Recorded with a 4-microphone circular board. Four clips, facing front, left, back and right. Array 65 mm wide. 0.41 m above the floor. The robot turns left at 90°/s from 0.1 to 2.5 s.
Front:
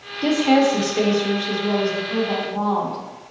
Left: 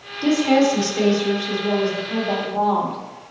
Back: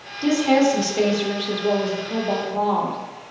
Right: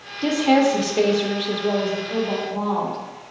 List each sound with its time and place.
0.2 s a woman speaking: 10° right, 0.8 m; by 3.0 s 145° left, 0.8 m